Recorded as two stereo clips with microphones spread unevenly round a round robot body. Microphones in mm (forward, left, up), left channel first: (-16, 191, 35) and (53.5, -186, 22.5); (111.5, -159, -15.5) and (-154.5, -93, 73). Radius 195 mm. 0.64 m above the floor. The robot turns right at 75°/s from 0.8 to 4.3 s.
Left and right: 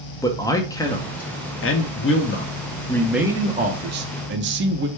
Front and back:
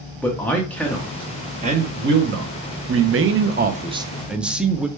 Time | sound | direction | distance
0.2 | a man speaking | 25° left | 0.5 m